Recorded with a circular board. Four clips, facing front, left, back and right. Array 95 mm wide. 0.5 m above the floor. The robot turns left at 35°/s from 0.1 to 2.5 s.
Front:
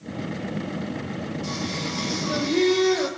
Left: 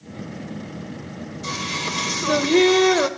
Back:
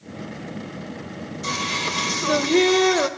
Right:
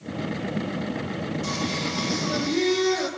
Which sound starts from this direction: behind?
Singing, at 1.4 s.